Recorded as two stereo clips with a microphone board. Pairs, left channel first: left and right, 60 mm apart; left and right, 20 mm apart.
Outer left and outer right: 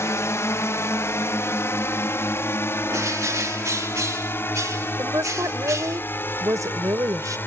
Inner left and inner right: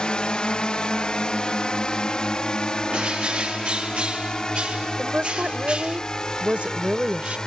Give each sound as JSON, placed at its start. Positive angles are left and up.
{"t": 0.0, "sound": "a drone", "side_deg": 55}
{"t": 2.9, "sound": "a bird", "side_deg": -65}
{"t": 5.0, "sound": "a woman speaking", "side_deg": -70}